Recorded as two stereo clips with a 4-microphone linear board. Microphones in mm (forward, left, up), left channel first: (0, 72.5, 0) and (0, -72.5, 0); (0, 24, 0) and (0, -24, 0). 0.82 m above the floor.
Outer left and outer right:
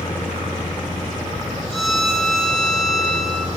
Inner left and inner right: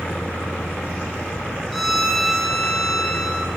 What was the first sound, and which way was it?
A violin, centre (ahead or behind).